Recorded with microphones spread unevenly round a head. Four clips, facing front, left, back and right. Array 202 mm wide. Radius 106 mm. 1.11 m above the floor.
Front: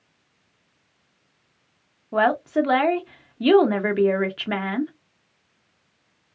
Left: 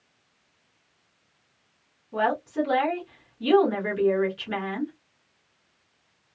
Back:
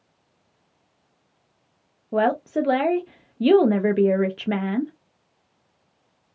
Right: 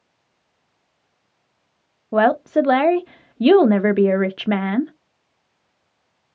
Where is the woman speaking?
100° right, 0.5 m.